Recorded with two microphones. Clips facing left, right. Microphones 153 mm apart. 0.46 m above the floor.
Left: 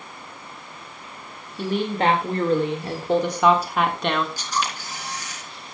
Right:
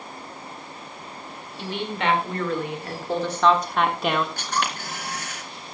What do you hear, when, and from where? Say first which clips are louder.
1.6 s a woman speaking: left 6 dB; 45° left (ahead or behind), 2.0 m; by 4.3 s 10° right (ahead or behind), 1.4 m
4.4 s a camera shutter: even; 60° right (ahead or behind), 4 m